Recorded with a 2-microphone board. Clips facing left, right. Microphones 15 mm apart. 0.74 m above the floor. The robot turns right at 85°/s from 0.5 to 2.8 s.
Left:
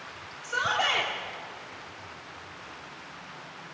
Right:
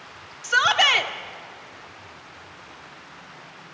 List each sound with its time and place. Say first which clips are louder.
0.4 s a shout: right 9 dB; 95° right, 1.6 m; by 1.1 s 45° right, 1.6 m